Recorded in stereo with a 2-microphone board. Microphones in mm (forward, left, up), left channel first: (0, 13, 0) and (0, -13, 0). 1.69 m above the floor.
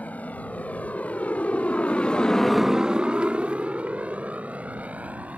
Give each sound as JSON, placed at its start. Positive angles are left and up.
{"t": 0.0, "sound": "a motorcycle", "side_deg": 75}